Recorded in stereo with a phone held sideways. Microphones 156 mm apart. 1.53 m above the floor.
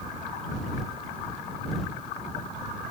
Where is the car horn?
I don't hear a car horn.